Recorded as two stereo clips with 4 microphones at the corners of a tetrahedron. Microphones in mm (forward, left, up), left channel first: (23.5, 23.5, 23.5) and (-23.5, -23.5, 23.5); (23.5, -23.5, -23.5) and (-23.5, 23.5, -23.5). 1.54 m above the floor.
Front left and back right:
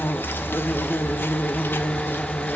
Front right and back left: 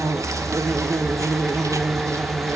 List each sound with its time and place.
0.0 s an insect: 100° left, 1.1 m